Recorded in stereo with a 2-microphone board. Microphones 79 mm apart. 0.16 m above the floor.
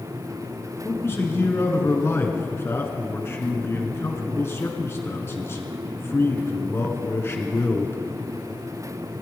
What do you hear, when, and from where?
0.8 s a man speaking: 35° left (ahead or behind), 2 m